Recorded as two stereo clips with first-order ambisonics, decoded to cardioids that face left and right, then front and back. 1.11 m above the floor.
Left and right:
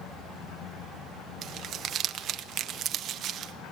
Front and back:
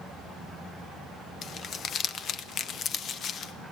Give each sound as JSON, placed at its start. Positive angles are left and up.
{"t": 1.4, "sound": "crumpling", "azimuth_deg": -50, "distance_m": 0.8}